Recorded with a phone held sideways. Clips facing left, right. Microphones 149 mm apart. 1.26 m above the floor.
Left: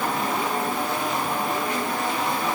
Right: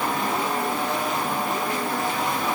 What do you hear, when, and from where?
Only background noise.